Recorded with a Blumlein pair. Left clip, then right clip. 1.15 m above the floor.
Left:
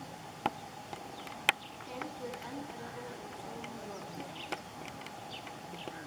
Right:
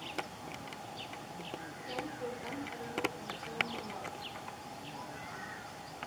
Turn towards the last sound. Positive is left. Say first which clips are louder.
# right 2 dB
turn(degrees=0)